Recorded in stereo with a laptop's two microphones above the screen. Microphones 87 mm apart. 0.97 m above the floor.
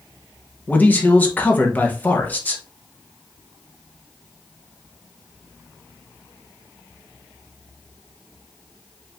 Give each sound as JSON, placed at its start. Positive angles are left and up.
{"t": 0.7, "sound": "a man speaking", "side_deg": 20, "distance_m": 0.7}